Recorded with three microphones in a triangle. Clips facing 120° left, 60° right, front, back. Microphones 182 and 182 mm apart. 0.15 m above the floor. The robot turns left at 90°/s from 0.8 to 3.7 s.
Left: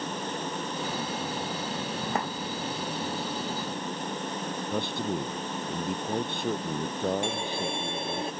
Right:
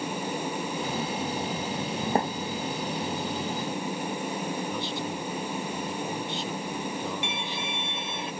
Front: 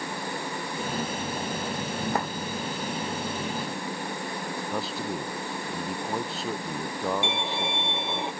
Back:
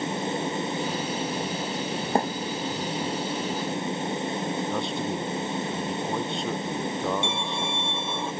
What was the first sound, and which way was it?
A thud, 115° right.